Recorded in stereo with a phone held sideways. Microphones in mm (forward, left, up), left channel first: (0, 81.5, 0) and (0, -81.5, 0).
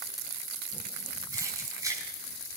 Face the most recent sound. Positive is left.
turn(degrees=-20)  # may be behind; listen again after turning